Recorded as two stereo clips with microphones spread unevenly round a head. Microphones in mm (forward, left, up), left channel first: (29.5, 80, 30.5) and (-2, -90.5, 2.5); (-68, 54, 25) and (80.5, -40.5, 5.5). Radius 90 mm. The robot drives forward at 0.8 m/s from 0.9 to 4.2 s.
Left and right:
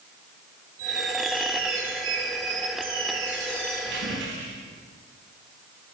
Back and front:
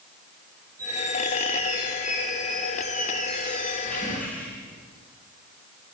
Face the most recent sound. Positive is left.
turn(degrees=-130)